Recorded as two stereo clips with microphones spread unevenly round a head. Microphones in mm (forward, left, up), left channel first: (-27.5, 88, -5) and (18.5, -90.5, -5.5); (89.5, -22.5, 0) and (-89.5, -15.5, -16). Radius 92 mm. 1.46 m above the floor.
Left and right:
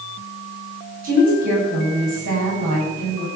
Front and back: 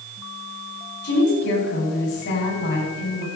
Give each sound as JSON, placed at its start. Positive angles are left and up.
{"t": 1.0, "sound": "a woman speaking", "azimuth_deg": -30, "distance_m": 9.5}